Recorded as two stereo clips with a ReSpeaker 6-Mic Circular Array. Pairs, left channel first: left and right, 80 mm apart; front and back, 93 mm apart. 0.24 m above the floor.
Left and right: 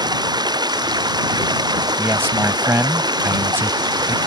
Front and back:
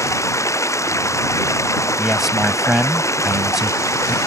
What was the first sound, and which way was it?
Running water, 60° right.